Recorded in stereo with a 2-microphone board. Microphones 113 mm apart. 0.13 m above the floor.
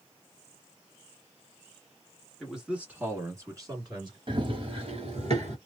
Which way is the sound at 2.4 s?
Centre (ahead or behind).